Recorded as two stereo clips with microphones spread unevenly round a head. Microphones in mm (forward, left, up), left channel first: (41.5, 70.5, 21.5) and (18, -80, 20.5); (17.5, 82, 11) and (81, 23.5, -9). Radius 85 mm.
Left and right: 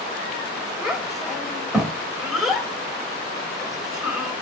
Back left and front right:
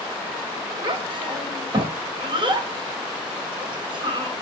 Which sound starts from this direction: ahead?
A child speaking, at 0.8 s.